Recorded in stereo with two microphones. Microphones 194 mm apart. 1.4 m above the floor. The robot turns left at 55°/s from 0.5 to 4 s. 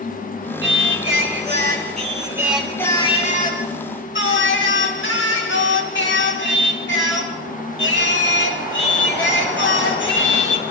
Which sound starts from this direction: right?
Singing, at 0.6 s.